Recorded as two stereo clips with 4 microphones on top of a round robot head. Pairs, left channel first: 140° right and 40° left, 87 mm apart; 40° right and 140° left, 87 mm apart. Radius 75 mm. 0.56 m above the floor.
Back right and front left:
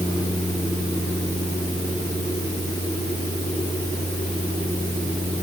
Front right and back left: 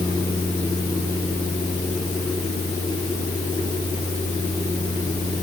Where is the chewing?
I don't hear chewing.